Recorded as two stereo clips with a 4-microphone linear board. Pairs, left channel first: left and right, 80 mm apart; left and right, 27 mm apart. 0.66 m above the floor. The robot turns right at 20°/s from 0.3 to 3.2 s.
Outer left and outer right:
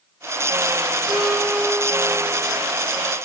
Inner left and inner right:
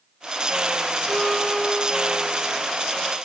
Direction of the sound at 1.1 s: 5° left (ahead or behind).